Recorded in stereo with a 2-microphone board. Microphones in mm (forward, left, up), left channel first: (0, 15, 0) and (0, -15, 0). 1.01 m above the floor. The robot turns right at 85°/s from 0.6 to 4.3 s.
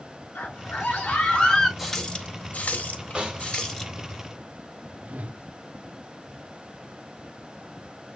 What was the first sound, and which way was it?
A scream, 75° left.